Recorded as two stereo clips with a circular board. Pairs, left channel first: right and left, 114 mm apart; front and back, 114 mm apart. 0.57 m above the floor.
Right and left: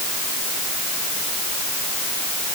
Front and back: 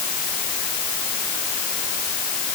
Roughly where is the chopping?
No chopping in this recording.